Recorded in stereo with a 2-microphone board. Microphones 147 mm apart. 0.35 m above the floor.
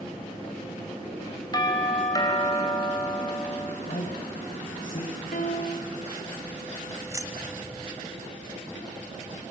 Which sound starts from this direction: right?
Keys jangling, at 7.1 s.